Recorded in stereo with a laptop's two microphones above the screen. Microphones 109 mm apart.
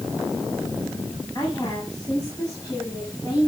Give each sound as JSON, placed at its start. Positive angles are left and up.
{"t": 1.4, "sound": "a woman speaking", "side_deg": 35, "distance_m": 8.0}